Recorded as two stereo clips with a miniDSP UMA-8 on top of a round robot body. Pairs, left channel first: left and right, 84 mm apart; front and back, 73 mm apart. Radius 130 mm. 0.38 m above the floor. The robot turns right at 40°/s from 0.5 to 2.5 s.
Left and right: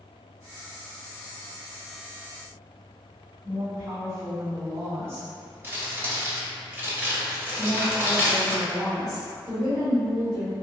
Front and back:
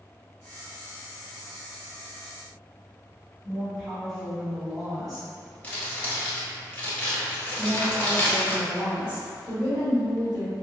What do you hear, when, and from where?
3.4 s a woman speaking: 85° right, 1.6 m
5.6 s crumpling: 50° right, 1.4 m
7.6 s a woman speaking: 110° right, 1.9 m